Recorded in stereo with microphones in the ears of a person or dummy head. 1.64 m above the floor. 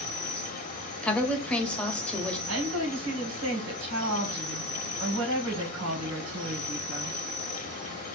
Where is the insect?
40° left (ahead or behind), 0.9 m.